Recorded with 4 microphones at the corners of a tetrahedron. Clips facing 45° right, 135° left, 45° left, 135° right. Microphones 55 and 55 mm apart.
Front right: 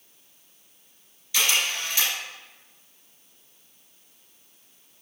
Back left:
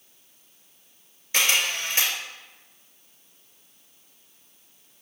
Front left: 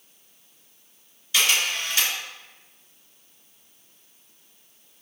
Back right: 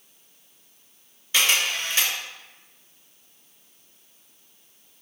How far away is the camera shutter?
About 2 m.